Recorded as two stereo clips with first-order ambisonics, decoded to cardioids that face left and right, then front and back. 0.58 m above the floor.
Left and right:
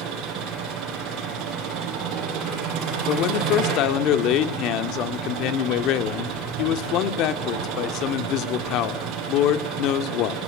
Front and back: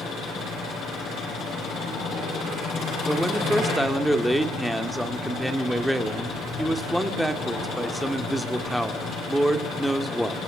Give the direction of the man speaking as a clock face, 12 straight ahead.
9 o'clock.